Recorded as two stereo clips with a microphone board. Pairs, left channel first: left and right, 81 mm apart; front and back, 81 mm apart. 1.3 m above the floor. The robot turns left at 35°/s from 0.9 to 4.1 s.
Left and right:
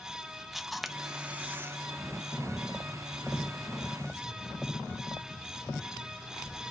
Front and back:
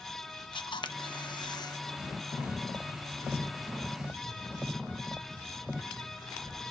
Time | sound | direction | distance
0.5 | a camera shutter | straight ahead | 0.7 m